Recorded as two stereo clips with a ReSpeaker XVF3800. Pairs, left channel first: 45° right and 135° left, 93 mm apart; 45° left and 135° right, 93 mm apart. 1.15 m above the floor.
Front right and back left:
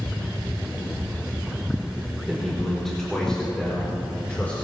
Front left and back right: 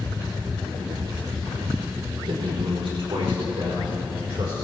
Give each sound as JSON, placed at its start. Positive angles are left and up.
{"t": 2.3, "sound": "a man speaking", "azimuth_deg": -135, "distance_m": 3.5}